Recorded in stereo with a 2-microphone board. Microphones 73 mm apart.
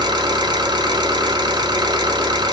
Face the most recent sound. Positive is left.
turn(degrees=-85)